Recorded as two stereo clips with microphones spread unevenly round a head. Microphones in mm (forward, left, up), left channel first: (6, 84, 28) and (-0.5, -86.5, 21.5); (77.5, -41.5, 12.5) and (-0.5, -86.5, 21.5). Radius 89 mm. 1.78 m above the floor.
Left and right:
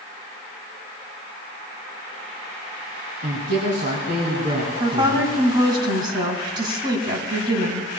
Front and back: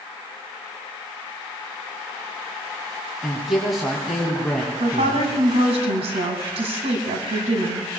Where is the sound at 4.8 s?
155° right, 2 m.